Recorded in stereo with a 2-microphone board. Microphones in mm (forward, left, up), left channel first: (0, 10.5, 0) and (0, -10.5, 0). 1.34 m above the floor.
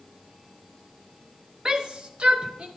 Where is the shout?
30° right (ahead or behind), 0.9 m; by 2.7 s 70° right (ahead or behind), 1.2 m.